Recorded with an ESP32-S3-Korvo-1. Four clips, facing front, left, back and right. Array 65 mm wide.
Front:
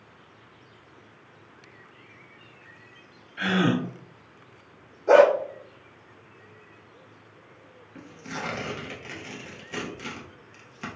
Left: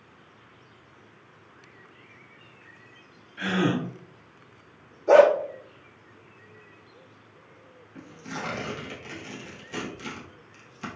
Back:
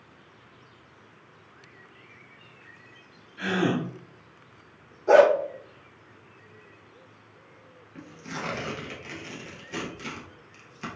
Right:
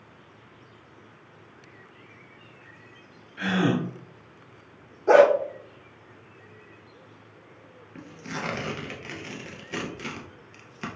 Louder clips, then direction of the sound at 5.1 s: Even, front 1 dB; 90° right.